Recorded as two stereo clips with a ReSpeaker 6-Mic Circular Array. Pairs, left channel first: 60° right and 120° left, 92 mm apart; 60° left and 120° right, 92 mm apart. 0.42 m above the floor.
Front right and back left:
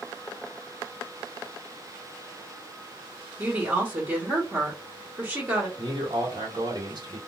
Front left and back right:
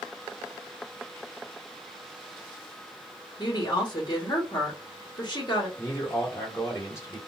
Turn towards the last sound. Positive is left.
turn(degrees=115)